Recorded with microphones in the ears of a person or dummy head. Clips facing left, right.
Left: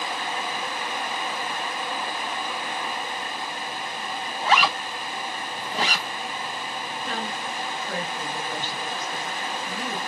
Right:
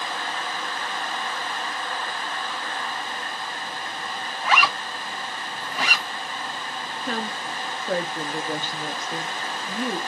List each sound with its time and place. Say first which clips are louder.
4.4 s a zipper: left 1 dB; 30° left (ahead or behind), 0.7 m
7.0 s a woman speaking: right 3 dB; 40° right (ahead or behind), 0.6 m